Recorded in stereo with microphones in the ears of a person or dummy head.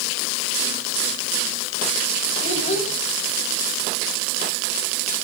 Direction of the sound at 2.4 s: 45° left (ahead or behind).